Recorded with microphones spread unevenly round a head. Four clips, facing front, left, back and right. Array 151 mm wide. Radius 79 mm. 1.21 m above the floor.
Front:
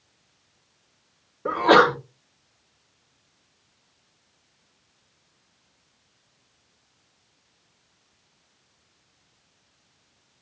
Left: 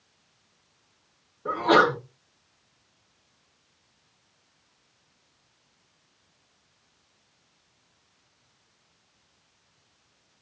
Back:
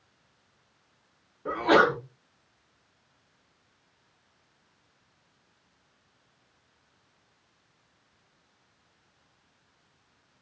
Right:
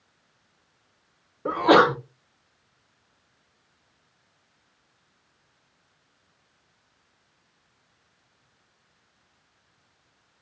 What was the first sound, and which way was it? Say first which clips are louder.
A sneeze: right 3 dB, front 5 dB; 40° right.